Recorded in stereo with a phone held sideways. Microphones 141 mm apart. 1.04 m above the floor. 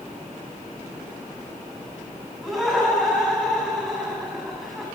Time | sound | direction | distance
2.4 | laughter | centre (ahead or behind) | 9 m